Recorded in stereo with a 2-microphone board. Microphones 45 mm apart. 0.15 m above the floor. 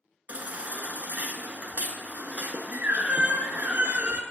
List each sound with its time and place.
0.3 s a baby crying: 40° right (ahead or behind), 0.5 m